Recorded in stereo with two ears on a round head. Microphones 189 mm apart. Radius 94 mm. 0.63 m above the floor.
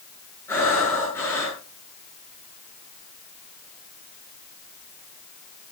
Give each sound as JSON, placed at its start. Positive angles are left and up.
{"t": 0.5, "sound": "breathing", "side_deg": 10, "distance_m": 7.5}